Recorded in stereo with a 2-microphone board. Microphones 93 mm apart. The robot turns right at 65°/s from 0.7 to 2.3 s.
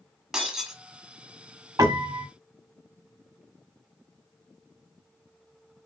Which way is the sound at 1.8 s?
105° right.